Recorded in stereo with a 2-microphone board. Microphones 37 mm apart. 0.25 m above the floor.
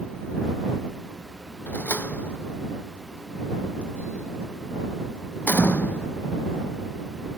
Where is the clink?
No clink in this recording.